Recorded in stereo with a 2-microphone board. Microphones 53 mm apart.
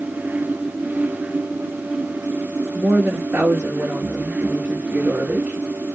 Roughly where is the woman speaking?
Right.